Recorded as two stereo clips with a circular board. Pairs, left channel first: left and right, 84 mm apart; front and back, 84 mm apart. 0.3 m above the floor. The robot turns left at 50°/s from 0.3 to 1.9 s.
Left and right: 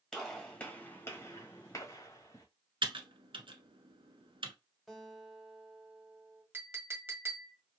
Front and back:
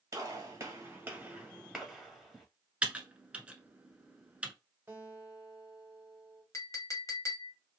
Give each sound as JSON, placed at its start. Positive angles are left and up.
{"t": 0.1, "sound": "a gunshot", "azimuth_deg": 160, "distance_m": 1.6}
{"t": 2.8, "sound": "typing on a keyboard", "azimuth_deg": -105, "distance_m": 0.8}
{"t": 4.9, "sound": "a guitar", "azimuth_deg": 175, "distance_m": 1.5}
{"t": 6.5, "sound": "a clink", "azimuth_deg": -35, "distance_m": 1.0}